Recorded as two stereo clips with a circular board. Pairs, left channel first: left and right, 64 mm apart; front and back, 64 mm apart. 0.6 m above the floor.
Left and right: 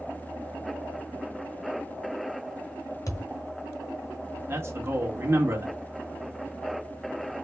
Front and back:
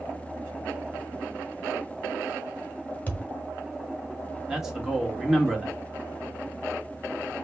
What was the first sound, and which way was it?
A thud, 65° left.